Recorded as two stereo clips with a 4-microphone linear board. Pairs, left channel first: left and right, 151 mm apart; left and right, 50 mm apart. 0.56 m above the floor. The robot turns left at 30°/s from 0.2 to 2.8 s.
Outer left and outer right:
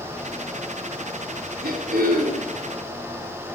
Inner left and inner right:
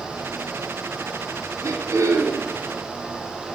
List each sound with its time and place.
1.6 s throat clearing: 85° right, 3.5 m; by 2.5 s 60° right (ahead or behind), 3.5 m